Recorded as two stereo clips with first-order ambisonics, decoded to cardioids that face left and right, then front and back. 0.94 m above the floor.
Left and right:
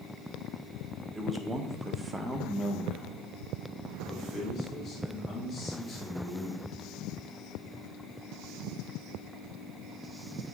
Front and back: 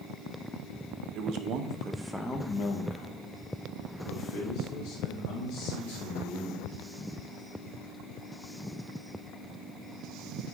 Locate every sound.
1.1 s a man speaking: 170° right, 0.8 m; by 6.7 s 5° left, 3 m